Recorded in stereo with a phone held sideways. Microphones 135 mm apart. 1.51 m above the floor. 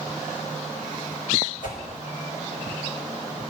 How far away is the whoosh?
About 5.5 m.